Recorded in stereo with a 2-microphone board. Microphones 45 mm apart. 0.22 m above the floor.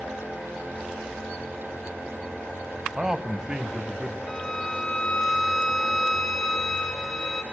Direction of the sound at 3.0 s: 15° right (ahead or behind).